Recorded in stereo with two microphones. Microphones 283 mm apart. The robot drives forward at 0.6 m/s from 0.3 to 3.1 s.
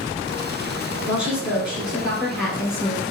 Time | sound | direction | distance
1.1 | a woman speaking | 5° right (ahead or behind) | 2.0 m